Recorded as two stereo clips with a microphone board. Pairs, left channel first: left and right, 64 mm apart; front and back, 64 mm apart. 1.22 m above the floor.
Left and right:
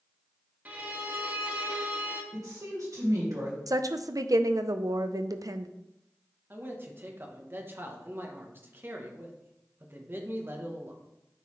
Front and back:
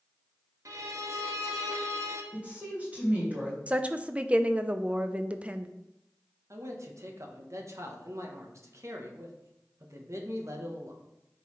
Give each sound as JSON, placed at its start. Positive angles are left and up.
{"t": 0.7, "sound": "a violin", "azimuth_deg": -155, "distance_m": 1.1}
{"t": 2.3, "sound": "a woman speaking", "azimuth_deg": -115, "distance_m": 2.5}
{"t": 3.7, "sound": "a woman speaking", "azimuth_deg": -110, "distance_m": 0.5}
{"t": 6.5, "sound": "a man speaking", "azimuth_deg": -145, "distance_m": 1.1}